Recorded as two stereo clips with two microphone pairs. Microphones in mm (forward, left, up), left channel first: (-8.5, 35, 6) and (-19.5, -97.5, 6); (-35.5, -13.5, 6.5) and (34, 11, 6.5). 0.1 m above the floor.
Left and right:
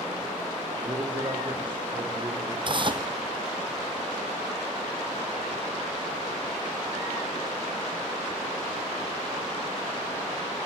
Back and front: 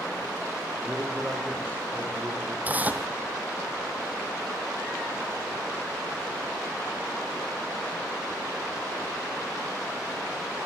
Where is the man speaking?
50° right, 4.5 m; by 2.5 s 40° right, 5.5 m.